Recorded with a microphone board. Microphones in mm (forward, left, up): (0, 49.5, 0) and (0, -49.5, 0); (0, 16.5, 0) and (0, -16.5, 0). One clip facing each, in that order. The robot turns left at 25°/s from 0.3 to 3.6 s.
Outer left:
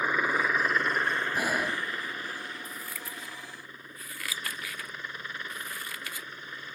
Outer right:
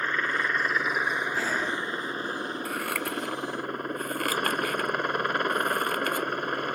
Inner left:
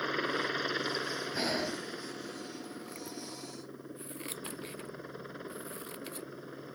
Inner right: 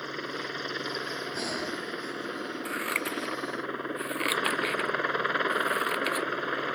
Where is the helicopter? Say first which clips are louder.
Outer left 1 dB, inner left 2 dB; 10° left; by 6.8 s 70° right.